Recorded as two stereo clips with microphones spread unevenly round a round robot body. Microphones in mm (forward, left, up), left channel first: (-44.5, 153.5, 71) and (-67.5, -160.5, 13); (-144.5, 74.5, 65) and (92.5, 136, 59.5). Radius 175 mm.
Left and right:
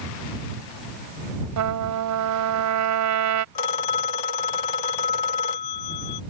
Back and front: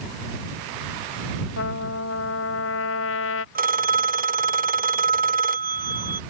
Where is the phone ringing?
70° left.